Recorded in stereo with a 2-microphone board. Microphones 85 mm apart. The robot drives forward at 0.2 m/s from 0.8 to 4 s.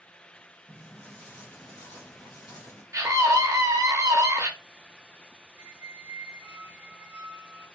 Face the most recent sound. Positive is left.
turn(degrees=-30)  # may be behind; listen again after turning